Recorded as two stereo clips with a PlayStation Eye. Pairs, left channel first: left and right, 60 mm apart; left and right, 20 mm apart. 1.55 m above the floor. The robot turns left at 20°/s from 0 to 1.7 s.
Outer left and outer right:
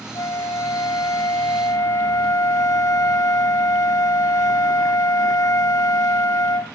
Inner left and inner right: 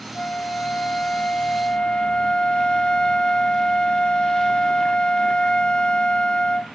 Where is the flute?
105° left, 0.6 m; by 6.8 s 75° left, 0.6 m.